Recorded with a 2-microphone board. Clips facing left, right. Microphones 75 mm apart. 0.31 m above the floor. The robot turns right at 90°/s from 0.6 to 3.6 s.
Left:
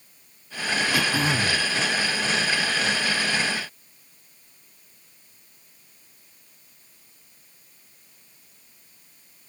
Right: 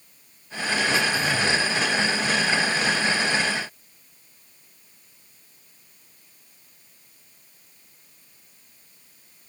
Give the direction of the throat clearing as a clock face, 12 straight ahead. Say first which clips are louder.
Even; 9 o'clock.